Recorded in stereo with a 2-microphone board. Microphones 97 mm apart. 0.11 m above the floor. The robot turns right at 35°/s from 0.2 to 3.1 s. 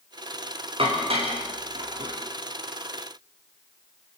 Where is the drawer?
I don't hear a drawer.